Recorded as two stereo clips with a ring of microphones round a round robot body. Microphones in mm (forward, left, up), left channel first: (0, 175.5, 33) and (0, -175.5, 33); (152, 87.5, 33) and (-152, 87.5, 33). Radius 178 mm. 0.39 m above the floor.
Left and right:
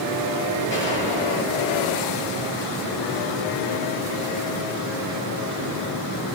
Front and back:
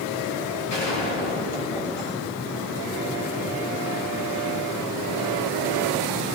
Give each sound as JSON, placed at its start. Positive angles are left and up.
{"t": 0.7, "sound": "a gunshot", "azimuth_deg": 30, "distance_m": 5.0}